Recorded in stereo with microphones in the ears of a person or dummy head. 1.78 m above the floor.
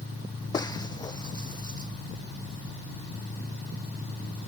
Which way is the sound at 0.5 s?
25° left (ahead or behind).